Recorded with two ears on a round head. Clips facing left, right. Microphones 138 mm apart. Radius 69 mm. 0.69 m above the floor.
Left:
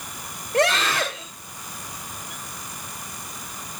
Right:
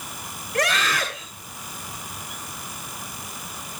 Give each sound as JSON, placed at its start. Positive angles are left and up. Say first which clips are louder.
{"t": 0.5, "sound": "a scream", "louder": "left 3 dB", "side_deg": 25, "distance_m": 2.5}